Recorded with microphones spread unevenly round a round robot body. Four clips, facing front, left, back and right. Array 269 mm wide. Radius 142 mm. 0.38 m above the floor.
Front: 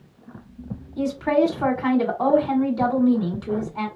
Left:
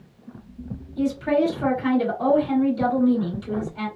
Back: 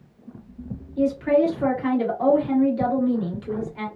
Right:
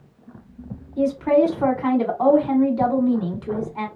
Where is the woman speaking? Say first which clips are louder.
Right 4 dB, back 1 dB; 50° right, 1.7 m.